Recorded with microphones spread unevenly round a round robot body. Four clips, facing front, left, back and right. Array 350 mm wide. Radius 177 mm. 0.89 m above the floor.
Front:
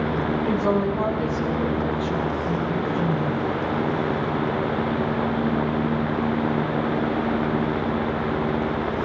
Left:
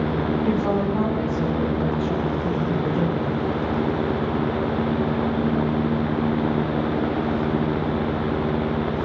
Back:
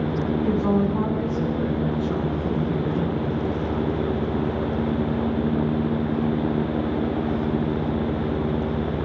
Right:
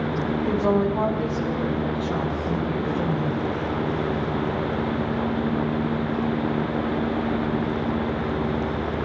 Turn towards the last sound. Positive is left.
turn(degrees=125)